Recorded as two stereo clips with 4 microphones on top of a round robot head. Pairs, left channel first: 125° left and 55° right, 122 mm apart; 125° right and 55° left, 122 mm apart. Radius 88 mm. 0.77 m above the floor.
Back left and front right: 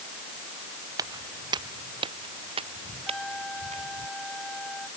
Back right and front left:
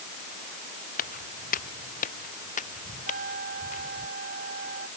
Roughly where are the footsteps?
Behind right.